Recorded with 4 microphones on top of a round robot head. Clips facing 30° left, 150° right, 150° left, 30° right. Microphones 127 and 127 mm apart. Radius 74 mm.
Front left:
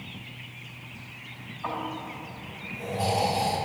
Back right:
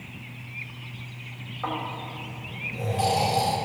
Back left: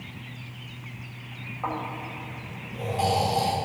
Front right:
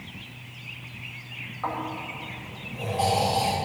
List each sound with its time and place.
1.6 s snoring: 135° right, 4 m